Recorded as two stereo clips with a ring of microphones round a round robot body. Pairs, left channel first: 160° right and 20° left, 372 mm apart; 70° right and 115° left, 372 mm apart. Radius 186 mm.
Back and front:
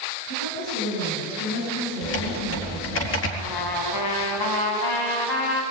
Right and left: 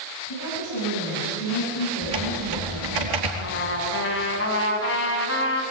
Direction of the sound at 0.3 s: 110° right.